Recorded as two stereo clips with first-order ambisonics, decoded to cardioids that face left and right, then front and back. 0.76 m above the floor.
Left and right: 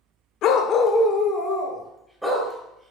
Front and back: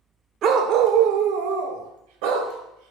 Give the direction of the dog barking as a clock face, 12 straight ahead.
8 o'clock.